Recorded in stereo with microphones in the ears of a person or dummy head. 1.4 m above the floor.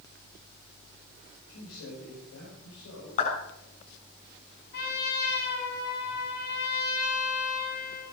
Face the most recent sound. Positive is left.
turn(degrees=55)  # may be behind; listen again after turning